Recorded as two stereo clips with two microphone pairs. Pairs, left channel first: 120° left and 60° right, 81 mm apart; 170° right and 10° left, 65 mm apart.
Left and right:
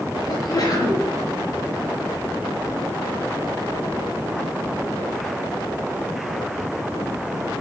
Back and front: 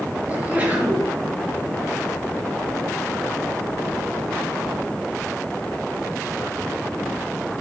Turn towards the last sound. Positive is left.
turn(degrees=80)